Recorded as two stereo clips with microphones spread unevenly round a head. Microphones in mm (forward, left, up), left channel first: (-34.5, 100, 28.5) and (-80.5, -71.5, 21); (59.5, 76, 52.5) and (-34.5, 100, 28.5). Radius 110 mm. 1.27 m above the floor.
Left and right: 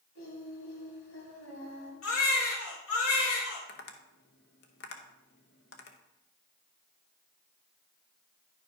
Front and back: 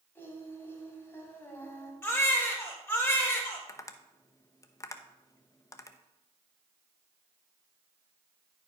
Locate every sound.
0.1 s singing: 50° left, 3 m
2.0 s a baby crying: 55° left, 3 m
3.7 s tapping: 35° left, 0.8 m